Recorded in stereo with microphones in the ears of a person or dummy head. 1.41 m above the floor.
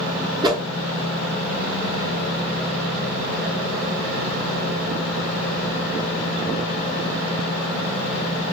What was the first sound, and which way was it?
A whoosh, 20° right (ahead or behind).